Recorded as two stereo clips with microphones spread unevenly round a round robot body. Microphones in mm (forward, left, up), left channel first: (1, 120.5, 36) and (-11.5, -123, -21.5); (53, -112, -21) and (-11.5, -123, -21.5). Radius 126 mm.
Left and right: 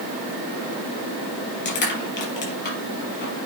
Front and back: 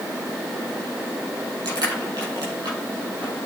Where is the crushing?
140° left, 5 m.